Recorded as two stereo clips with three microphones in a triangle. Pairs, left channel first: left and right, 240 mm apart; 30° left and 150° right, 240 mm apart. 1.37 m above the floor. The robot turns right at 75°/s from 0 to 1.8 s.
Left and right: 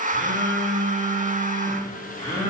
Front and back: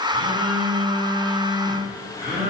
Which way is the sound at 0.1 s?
30° left.